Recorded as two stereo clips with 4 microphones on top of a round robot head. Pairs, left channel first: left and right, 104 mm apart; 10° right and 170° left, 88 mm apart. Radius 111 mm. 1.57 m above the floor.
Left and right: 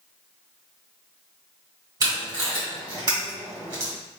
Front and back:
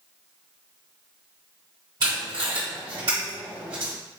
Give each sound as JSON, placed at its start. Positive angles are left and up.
{"t": 2.0, "sound": "tape being pulled", "azimuth_deg": -135, "distance_m": 1.7}